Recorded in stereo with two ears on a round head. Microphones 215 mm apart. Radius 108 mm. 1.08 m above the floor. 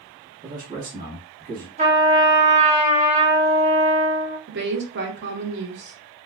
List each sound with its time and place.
0.4 s a man speaking: 40° right (ahead or behind), 1.6 m
1.8 s a trumpet: 30° right (ahead or behind), 1.2 m
4.5 s a woman speaking: 45° right (ahead or behind), 0.8 m